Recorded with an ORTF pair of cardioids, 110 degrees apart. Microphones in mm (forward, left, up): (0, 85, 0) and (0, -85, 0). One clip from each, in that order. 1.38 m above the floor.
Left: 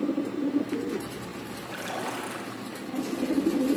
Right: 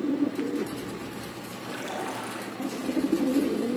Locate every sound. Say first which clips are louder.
1.6 s a splash: even; 15° left, 9 m